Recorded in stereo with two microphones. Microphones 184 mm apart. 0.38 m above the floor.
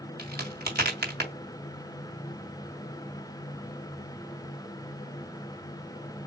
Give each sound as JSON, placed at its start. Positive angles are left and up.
{"t": 0.2, "sound": "a crack", "side_deg": -65, "distance_m": 2.5}